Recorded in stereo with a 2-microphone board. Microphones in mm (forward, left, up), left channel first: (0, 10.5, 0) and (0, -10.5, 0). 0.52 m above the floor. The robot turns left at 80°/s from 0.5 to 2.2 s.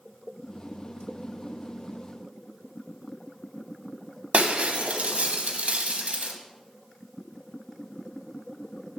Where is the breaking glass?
85° right, 1.1 m.